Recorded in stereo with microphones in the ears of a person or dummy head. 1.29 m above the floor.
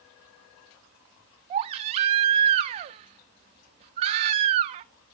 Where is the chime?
I don't hear a chime.